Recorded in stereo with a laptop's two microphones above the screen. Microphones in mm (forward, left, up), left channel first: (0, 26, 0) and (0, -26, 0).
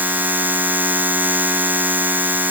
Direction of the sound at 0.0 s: 35° right (ahead or behind).